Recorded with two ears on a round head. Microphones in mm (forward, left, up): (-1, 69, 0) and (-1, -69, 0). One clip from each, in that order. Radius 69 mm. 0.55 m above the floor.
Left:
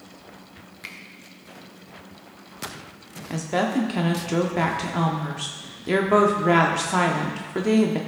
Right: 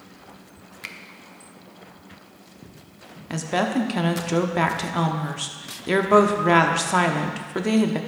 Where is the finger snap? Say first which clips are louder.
Right 2 dB; 20° right (ahead or behind), 0.7 m.